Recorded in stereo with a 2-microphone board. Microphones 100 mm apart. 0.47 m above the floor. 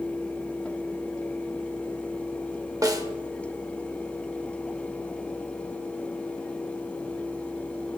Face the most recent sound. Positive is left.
turn(degrees=-35)  # may be behind; listen again after turning